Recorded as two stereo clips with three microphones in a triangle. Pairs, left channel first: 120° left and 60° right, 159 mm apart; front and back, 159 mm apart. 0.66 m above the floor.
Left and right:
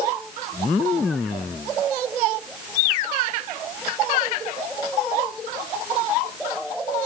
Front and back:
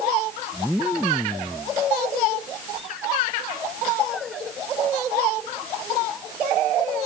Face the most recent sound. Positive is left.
No sound to turn to.